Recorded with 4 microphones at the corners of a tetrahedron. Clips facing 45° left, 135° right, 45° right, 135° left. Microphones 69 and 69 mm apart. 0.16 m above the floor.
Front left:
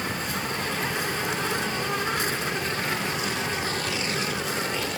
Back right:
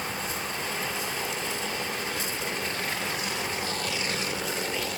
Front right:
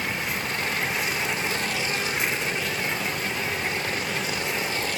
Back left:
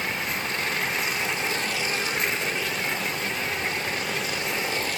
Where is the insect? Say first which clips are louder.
Front left 3 dB, even; 45° left.